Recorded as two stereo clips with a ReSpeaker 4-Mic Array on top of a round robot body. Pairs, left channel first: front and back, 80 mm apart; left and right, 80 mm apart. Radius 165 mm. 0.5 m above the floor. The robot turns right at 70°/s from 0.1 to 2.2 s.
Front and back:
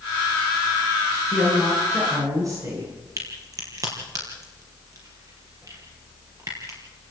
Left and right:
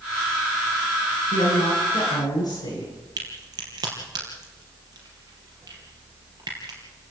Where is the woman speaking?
65° left, 8.5 m; by 3.1 s 130° left, 8.5 m.